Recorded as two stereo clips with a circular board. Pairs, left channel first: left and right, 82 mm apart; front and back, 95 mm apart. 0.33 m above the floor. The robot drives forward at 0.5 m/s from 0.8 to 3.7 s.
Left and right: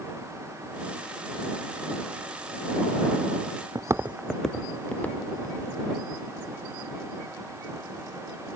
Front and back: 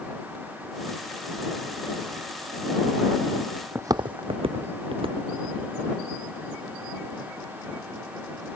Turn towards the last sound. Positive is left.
turn(degrees=155)